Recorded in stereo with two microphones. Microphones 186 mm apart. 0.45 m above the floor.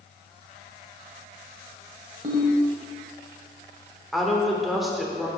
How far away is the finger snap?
No finger snap in this recording.